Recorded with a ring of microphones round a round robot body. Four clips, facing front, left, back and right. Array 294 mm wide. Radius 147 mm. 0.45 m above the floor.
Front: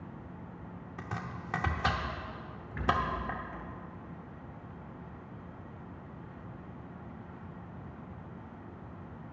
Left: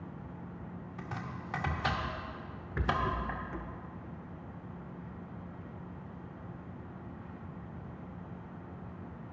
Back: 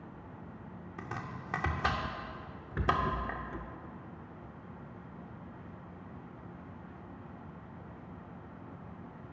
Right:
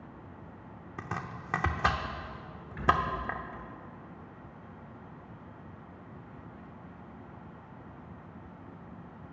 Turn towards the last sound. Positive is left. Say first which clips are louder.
# right 4 dB, even
turn(degrees=140)